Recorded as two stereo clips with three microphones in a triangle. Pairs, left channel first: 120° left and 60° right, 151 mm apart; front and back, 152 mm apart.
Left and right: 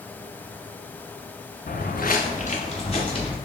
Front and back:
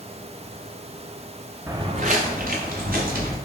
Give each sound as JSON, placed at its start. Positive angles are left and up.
{"t": 1.7, "sound": "footsteps", "azimuth_deg": 105, "distance_m": 0.6}